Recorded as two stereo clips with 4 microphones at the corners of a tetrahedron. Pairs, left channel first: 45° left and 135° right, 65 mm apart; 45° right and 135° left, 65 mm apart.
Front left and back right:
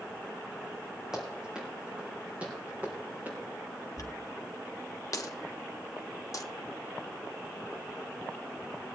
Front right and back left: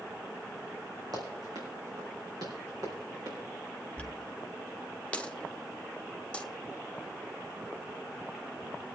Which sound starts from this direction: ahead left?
A dropped coin, at 4.0 s.